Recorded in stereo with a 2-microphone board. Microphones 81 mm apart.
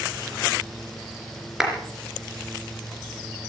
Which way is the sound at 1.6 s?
5° right (ahead or behind).